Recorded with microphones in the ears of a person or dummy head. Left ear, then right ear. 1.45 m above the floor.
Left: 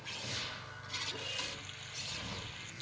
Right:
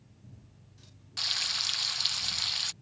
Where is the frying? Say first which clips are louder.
Right 11 dB; 55° right (ahead or behind).